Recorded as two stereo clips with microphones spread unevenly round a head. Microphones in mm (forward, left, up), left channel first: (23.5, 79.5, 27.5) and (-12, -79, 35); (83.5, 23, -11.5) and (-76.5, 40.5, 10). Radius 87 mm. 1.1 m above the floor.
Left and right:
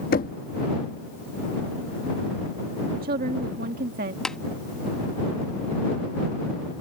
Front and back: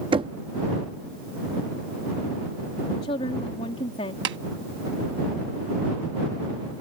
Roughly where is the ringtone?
No ringtone in this recording.